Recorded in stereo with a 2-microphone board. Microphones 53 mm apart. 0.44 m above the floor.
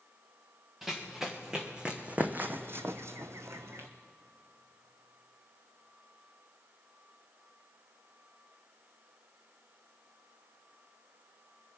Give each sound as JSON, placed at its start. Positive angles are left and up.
{"t": 0.8, "sound": "running footsteps", "side_deg": -5, "distance_m": 1.7}